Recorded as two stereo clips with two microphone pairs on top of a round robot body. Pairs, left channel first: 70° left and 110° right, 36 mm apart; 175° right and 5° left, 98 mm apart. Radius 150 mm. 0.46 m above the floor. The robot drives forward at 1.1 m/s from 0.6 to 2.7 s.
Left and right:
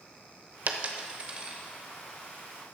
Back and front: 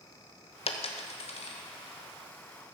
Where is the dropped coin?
150° right, 0.9 m; by 1.6 s 165° right, 1.9 m.